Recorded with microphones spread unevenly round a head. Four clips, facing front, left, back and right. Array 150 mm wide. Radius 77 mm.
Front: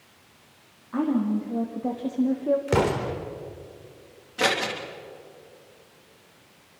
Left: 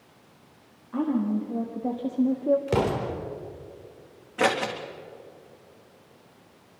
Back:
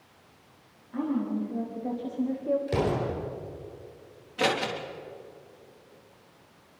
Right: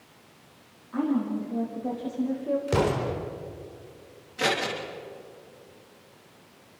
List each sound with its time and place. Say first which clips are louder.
0.9 s a woman speaking: left 1 dB, front 5 dB; 40° left, 3.5 m; by 2.6 s 60° left, 1.5 m
2.7 s an explosion: even, front 4 dB; 40° left, 3.5 m
4.4 s scissors: left 3 dB, front 2 dB; 75° left, 3 m